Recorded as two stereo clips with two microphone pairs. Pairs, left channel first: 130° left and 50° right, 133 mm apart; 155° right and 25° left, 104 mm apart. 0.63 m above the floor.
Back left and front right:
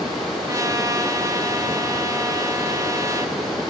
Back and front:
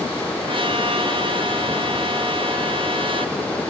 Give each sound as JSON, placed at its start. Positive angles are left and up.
{"t": 0.5, "sound": "a trumpet", "azimuth_deg": 10, "distance_m": 0.9}